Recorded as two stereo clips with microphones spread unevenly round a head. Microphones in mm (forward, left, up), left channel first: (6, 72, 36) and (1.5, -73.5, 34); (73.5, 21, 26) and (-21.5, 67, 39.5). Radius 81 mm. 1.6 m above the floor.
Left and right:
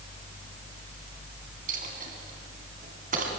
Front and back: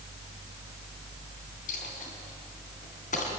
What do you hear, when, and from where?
1.7 s a dropped coin: 60° right, 3 m